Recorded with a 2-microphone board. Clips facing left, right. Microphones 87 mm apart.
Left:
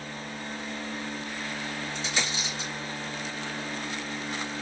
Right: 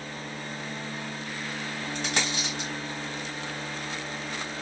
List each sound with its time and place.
1.9 s a dropped coin: 60° right (ahead or behind), 1.9 m